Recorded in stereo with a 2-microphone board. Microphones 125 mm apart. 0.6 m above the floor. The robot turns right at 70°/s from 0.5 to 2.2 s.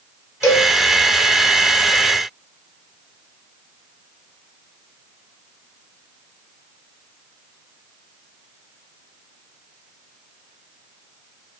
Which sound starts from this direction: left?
A cowbell, at 0.4 s.